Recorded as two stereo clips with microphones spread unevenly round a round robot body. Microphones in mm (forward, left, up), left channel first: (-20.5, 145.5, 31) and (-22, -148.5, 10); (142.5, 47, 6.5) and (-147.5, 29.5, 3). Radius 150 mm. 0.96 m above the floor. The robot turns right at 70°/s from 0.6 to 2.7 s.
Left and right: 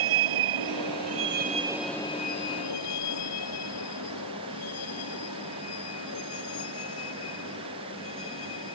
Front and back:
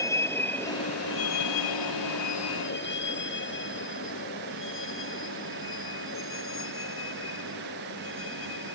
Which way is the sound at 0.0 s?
75° right.